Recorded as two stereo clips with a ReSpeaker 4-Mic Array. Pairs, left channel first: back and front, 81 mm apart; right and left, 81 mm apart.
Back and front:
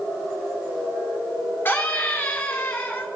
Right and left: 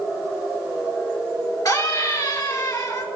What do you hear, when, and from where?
1.6 s a scream: 120° right, 3 m